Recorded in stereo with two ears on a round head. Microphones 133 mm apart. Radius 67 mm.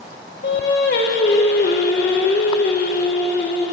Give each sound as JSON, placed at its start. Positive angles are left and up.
{"t": 0.4, "sound": "singing", "side_deg": 85, "distance_m": 1.6}